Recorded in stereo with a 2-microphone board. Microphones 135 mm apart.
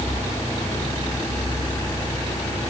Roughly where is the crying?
No crying in this recording.